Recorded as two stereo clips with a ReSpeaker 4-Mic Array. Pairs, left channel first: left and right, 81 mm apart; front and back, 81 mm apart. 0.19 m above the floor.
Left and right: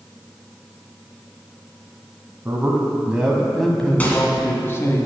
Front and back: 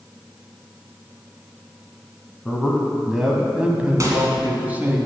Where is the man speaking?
85° right, 1.1 m; by 5.0 s 125° left, 1.3 m.